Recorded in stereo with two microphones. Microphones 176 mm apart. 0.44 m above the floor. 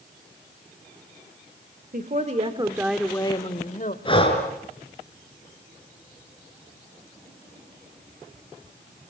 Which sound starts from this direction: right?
A woman speaking, at 1.9 s.